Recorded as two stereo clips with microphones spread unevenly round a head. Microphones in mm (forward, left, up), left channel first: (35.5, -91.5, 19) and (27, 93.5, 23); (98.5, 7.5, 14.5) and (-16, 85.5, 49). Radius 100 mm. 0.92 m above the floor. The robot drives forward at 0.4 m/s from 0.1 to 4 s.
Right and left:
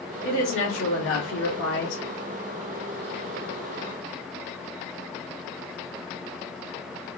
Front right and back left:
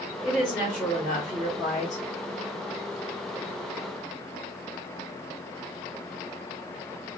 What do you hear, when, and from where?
0.2 s a woman speaking: 100° right, 2 m; by 2.0 s 120° right, 2.5 m